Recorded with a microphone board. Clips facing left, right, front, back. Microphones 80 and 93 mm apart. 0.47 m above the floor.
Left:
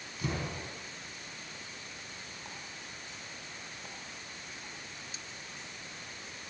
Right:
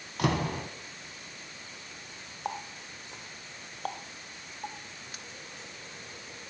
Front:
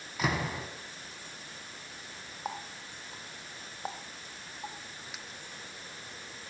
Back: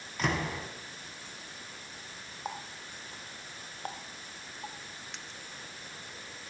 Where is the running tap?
85° right, 0.7 m.